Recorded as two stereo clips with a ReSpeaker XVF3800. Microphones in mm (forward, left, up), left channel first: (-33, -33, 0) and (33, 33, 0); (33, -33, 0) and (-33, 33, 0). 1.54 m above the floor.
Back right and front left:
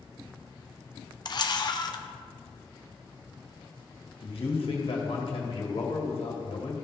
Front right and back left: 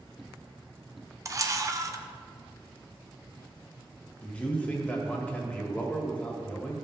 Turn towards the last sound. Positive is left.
turn(degrees=-120)